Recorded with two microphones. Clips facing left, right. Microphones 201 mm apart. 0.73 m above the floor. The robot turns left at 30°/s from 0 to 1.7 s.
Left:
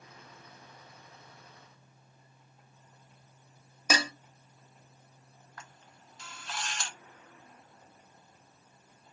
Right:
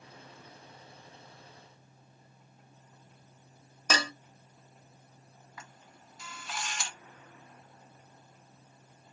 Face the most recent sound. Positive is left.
turn(degrees=-5)  # may be behind; listen again after turning